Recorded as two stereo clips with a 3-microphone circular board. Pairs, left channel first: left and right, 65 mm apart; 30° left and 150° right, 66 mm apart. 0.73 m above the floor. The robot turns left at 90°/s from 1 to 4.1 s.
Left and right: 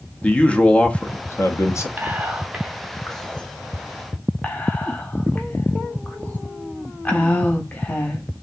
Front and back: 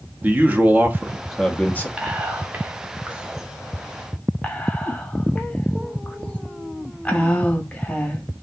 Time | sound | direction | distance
0.2 | a man speaking | 155° left | 0.6 m
2.0 | whispering | 95° right | 0.8 m